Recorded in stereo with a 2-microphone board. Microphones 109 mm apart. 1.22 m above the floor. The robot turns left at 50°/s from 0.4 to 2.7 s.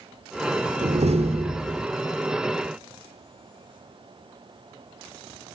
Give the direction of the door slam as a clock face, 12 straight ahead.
3 o'clock.